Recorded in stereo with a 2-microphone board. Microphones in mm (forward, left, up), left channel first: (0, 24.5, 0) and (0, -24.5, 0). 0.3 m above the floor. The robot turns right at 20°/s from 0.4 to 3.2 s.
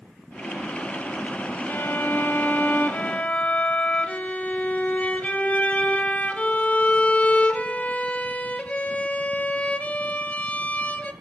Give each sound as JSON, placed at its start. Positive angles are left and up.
{"t": 1.7, "sound": "a violin", "azimuth_deg": 110, "distance_m": 0.6}